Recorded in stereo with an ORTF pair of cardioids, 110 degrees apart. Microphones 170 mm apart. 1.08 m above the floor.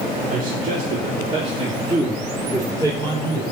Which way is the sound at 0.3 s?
55° right.